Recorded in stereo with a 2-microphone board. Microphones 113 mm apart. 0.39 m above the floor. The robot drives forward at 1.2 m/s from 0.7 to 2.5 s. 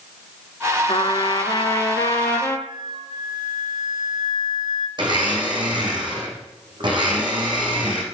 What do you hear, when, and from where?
0.9 s a trumpet: 55° left (ahead or behind), 1.4 m; by 2.6 s 20° left (ahead or behind), 3 m
2.7 s a flute: 45° right (ahead or behind), 1.1 m
5.0 s a blender: 45° right (ahead or behind), 4.5 m